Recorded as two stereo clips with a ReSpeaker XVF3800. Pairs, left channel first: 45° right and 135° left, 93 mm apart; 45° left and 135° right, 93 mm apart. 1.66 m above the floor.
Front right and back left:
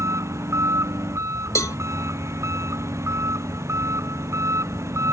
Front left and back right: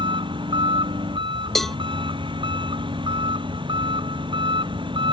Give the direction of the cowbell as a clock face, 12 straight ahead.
1 o'clock.